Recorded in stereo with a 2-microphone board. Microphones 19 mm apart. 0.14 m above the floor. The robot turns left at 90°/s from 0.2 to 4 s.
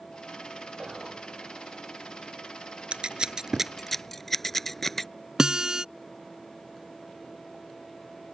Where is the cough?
No cough in this recording.